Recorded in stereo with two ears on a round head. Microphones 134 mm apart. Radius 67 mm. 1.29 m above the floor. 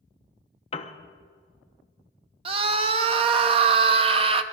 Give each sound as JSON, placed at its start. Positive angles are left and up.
{"t": 0.7, "sound": "a piano", "side_deg": 35, "distance_m": 0.9}
{"t": 2.5, "sound": "a scream", "side_deg": -35, "distance_m": 1.0}